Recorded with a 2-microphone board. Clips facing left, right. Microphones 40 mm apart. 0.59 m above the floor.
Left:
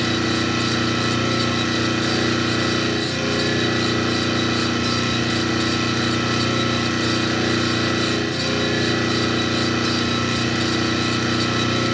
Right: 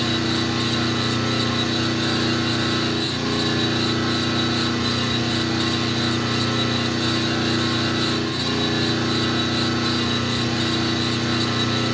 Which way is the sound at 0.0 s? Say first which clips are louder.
Left 2 dB; 75° left (ahead or behind).